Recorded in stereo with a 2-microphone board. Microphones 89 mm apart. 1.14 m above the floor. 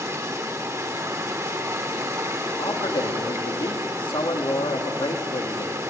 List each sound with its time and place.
0.0 s running water: 35° right (ahead or behind), 1.6 m
2.6 s a man speaking: 65° left (ahead or behind), 2.5 m